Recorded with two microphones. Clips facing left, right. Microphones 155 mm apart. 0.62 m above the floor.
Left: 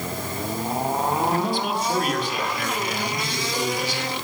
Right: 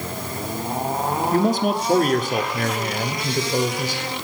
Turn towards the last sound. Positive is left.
turn(degrees=-45)  # may be behind; listen again after turning